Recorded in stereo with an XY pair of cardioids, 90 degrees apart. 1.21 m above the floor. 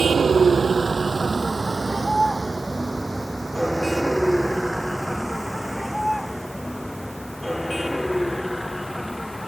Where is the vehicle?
40° right; by 9.5 s 15° left.